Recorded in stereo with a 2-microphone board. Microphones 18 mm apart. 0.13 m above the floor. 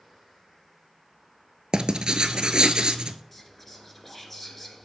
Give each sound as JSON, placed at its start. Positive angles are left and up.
{"t": 1.7, "sound": "writing", "side_deg": -60, "distance_m": 0.6}
{"t": 3.3, "sound": "whispering", "side_deg": 10, "distance_m": 1.8}